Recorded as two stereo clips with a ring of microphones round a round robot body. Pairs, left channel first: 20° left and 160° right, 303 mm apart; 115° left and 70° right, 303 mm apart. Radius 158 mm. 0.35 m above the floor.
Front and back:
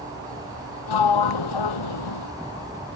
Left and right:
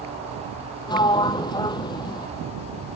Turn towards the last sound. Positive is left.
turn(degrees=35)